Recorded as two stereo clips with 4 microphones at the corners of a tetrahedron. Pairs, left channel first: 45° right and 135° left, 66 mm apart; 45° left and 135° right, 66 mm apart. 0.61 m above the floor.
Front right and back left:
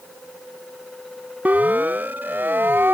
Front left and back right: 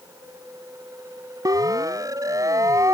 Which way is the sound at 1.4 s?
160° right.